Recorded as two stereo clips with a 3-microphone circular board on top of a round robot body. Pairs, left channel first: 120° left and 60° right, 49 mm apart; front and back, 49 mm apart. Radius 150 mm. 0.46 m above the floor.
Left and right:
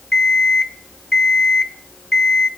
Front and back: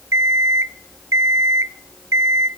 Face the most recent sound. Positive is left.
turn(degrees=-165)